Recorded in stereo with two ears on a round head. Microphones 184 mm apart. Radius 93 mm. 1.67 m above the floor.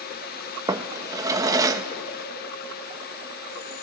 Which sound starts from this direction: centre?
A drawer, at 0.7 s.